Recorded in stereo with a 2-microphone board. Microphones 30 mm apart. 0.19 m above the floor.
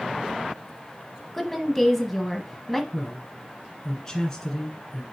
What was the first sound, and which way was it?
A woman speaking, 5° left (ahead or behind).